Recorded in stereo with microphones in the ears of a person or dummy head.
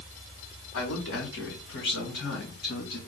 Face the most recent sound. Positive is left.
turn(degrees=60)  # may be behind; listen again after turning